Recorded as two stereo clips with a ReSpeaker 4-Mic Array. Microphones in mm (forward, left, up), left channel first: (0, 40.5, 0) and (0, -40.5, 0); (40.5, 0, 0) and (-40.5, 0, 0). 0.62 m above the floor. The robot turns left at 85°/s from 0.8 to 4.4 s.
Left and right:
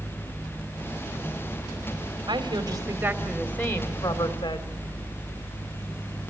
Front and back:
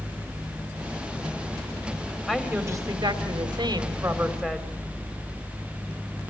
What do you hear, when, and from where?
2.3 s a woman speaking: 90° right, 2.5 m; by 4.8 s 90° left, 2.5 m